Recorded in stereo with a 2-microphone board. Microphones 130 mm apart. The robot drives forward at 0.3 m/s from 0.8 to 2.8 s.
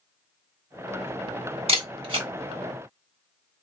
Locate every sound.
1.7 s a camera shutter: 50° right (ahead or behind), 1.3 m; by 2.3 s 45° right (ahead or behind), 1.4 m